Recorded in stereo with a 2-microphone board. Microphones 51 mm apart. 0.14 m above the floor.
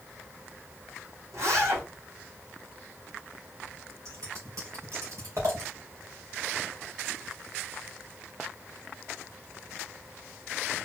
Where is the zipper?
80° right, 4 m.